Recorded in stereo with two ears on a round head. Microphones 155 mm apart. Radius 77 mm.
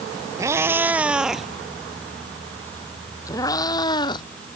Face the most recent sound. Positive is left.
turn(degrees=25)  # may be behind; listen again after turning